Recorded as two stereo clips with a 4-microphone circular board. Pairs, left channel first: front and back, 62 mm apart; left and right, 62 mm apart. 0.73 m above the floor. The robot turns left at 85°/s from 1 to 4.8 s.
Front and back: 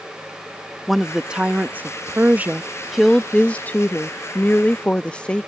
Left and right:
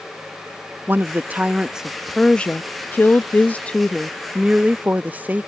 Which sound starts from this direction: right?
A woman speaking, at 0.9 s.